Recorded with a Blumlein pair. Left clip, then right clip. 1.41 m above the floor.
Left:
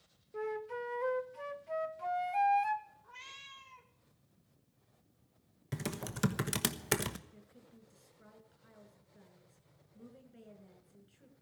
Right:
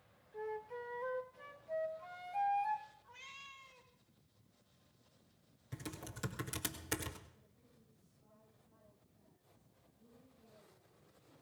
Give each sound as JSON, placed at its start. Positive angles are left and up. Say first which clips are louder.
{"t": 0.3, "sound": "a flute", "louder": "left 5 dB", "azimuth_deg": 25, "distance_m": 0.9}
{"t": 3.0, "sound": "a cat meowing", "louder": "left 3 dB", "azimuth_deg": 15, "distance_m": 2.0}
{"t": 5.7, "sound": "typing on a keyboard", "louder": "left 7 dB", "azimuth_deg": 30, "distance_m": 1.1}
{"t": 7.3, "sound": "a woman speaking", "louder": "left 9 dB", "azimuth_deg": 40, "distance_m": 6.5}